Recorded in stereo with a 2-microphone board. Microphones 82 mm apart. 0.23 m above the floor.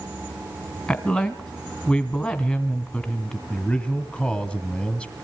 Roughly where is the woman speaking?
Left.